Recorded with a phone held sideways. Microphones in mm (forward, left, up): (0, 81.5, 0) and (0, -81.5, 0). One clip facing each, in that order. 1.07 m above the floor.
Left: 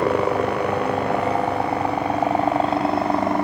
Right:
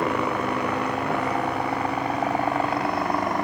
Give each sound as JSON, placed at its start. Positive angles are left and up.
{"t": 0.0, "sound": "a helicopter", "side_deg": 30}